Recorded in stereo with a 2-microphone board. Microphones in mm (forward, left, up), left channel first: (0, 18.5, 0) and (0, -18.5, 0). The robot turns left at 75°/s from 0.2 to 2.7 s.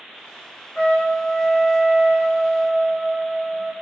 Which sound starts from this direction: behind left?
A trumpet, at 0.8 s.